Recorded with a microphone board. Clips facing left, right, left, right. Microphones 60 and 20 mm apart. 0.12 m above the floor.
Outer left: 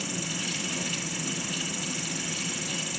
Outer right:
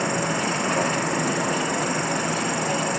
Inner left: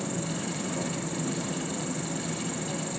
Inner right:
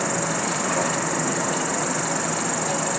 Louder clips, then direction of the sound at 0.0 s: Outer right 11 dB, inner right 8 dB; 60° right (ahead or behind).